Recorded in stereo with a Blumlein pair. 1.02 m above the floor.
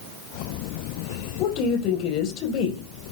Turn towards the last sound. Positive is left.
turn(degrees=40)